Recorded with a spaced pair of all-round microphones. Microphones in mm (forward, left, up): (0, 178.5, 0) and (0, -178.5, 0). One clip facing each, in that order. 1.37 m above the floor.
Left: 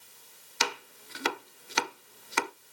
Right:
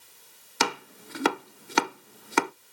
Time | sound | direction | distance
0.6 | chopping | 70° right (ahead or behind) | 0.6 m